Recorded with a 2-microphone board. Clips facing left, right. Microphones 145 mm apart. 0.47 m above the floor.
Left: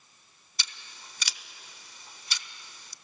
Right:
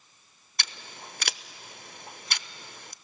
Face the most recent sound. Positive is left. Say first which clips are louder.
# right 6 dB
turn(degrees=-65)  # may be behind; listen again after turning